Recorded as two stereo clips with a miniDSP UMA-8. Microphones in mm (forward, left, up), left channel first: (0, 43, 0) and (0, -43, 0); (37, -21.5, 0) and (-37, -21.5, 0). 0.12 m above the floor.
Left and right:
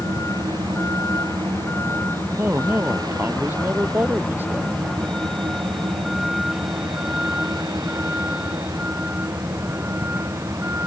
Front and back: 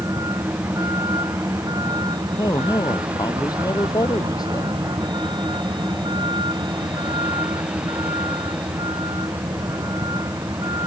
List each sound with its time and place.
0.0 s a vehicle: 145° left; by 10.9 s 155° right
2.4 s a man speaking: 25° right